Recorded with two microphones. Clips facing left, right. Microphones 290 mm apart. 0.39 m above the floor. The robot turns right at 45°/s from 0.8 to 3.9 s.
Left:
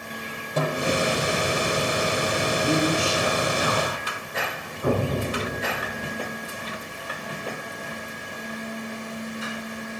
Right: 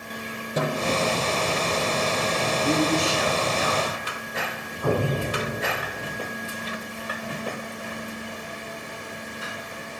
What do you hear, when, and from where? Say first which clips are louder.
0.6 s a snare drum: left 1 dB; 15° right (ahead or behind), 5 m; by 1.2 s centre (ahead or behind), 5 m
2.6 s a man speaking: right 1 dB; 15° left, 3.5 m; by 4.1 s 75° left, 3.5 m
4.8 s an explosion: even; 25° left (ahead or behind), 3.5 m